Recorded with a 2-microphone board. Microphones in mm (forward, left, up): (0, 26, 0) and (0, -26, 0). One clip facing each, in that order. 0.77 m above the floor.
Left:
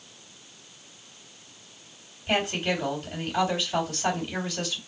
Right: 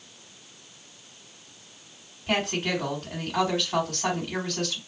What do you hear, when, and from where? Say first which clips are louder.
2.3 s a woman speaking: even; 65° right (ahead or behind), 2.5 m